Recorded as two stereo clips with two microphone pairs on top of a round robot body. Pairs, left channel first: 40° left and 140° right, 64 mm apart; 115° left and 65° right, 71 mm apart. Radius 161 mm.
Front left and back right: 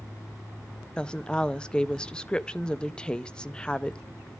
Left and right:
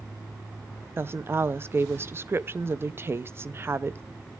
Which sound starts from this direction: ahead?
A woman speaking, at 1.0 s.